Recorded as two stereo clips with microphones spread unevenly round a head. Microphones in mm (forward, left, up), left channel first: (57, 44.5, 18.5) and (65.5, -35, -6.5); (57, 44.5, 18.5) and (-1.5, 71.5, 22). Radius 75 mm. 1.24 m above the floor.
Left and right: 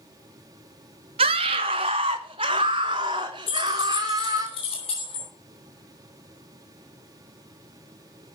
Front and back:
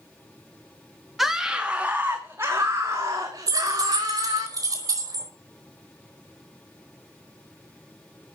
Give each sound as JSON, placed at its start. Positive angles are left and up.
{"t": 1.2, "sound": "a scream", "azimuth_deg": -115, "distance_m": 1.7}
{"t": 3.5, "sound": "keys jangling", "azimuth_deg": 130, "distance_m": 4.5}